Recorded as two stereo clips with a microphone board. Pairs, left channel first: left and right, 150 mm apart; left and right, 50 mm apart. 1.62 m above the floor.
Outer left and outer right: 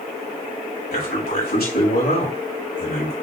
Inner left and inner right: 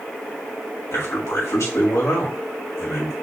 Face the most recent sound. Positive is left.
turn(degrees=90)